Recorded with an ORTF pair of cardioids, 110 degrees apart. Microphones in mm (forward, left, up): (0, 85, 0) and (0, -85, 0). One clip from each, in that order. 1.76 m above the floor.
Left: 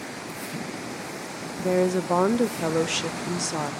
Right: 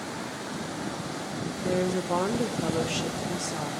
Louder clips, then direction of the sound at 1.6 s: Left 5 dB; 25° left.